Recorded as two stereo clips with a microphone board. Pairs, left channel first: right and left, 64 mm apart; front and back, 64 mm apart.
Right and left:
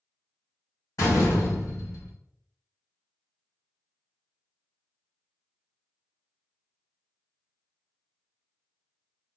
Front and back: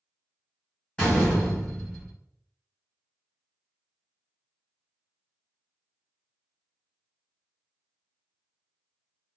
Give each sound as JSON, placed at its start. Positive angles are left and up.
{"t": 1.0, "sound": "a door slam", "azimuth_deg": -70, "distance_m": 1.7}